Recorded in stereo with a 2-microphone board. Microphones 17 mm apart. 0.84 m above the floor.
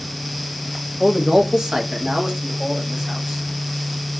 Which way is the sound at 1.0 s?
10° right (ahead or behind).